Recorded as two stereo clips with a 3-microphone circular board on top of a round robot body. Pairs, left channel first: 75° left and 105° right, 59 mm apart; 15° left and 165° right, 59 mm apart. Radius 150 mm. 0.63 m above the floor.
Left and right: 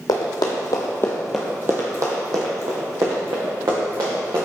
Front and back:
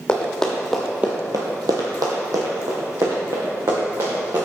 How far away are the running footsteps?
About 1.5 m.